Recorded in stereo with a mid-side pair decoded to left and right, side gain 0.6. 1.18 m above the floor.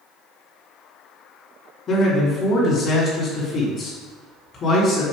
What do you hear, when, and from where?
1.9 s a man speaking: 45° left, 3 m